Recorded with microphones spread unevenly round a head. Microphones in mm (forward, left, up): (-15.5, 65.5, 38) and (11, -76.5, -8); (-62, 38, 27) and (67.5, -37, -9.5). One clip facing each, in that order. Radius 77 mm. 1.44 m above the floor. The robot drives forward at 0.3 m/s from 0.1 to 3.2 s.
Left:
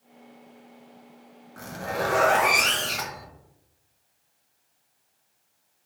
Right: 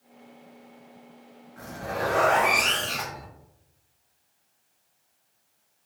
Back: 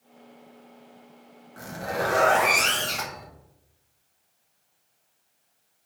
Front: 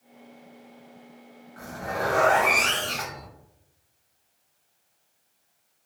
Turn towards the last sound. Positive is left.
turn(degrees=130)